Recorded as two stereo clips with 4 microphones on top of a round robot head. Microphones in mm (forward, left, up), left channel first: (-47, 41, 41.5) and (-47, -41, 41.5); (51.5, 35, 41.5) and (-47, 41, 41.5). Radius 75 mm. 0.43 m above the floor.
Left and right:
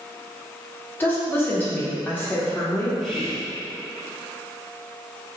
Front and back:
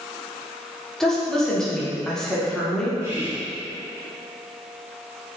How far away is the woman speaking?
About 1.0 m.